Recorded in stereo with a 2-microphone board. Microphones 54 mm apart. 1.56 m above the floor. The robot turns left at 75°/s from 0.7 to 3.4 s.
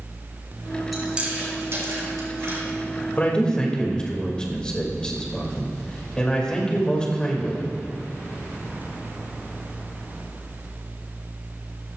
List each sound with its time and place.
0.9 s chewing: 5° right (ahead or behind), 4 m; by 2.6 s 50° right (ahead or behind), 4 m
3.2 s a man speaking: 35° left (ahead or behind), 2.5 m; by 7.7 s 15° left (ahead or behind), 2.5 m